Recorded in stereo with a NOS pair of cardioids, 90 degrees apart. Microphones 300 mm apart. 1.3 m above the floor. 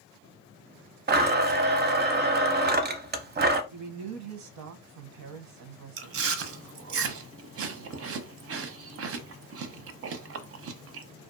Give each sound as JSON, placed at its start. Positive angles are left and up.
{"t": 1.1, "sound": "a blender", "azimuth_deg": -35, "distance_m": 0.6}
{"t": 3.7, "sound": "a man speaking", "azimuth_deg": -70, "distance_m": 0.7}
{"t": 6.0, "sound": "chewing", "azimuth_deg": -50, "distance_m": 0.6}